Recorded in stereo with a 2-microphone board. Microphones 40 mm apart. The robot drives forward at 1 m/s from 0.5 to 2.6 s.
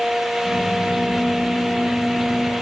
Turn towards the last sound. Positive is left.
No sound to turn to.